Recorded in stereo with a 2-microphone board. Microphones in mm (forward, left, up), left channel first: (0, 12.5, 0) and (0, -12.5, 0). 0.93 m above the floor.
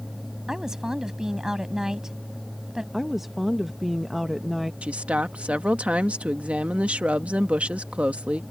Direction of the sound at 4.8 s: 65° right (ahead or behind).